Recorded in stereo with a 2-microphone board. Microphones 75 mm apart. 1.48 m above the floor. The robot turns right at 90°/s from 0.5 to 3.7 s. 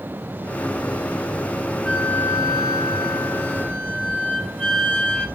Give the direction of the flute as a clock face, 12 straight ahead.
12 o'clock.